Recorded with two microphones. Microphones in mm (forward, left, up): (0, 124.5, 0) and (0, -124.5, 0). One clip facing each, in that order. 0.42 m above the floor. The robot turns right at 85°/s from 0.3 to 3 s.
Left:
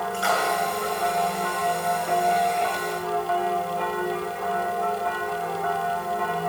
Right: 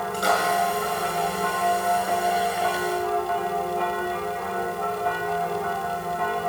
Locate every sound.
0.1 s a splash: 40° right (ahead or behind), 7 m; by 0.4 s 50° right (ahead or behind), 7 m